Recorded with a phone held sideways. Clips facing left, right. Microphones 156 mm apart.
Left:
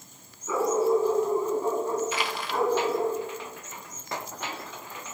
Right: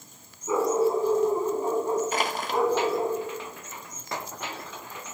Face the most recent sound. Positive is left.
turn(degrees=-45)  # may be behind; listen again after turning